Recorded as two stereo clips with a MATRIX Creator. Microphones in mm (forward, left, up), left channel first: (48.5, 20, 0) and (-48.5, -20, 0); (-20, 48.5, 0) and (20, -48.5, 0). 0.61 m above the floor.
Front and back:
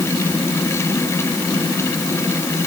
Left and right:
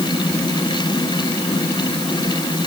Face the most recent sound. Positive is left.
No sound to turn to.